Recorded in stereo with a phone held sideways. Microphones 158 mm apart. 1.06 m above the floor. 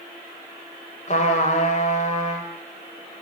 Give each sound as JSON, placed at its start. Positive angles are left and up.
{"t": 1.1, "sound": "a trumpet", "side_deg": 50, "distance_m": 4.0}